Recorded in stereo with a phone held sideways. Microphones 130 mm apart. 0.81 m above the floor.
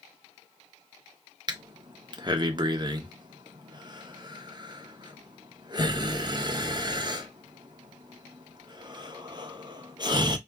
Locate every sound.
1.5 s breathing: 35° right (ahead or behind), 0.6 m